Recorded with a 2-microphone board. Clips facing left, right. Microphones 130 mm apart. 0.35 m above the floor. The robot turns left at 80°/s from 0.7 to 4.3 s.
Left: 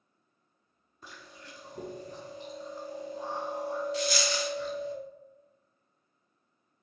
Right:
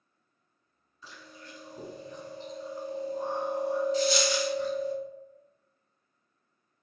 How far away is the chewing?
About 1.4 m.